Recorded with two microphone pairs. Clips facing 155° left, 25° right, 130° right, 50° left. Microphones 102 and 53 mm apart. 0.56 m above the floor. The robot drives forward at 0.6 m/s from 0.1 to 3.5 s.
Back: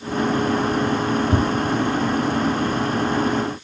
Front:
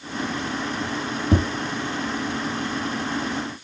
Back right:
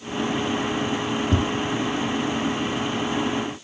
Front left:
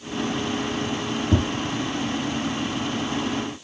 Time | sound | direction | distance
1.3 | tapping | 45° right | 4 m